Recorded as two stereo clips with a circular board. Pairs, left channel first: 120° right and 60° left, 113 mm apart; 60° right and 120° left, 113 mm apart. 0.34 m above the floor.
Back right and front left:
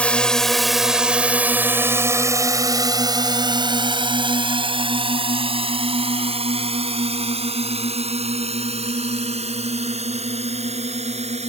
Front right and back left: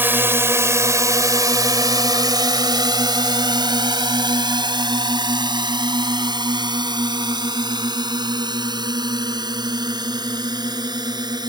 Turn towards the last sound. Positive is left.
turn(degrees=70)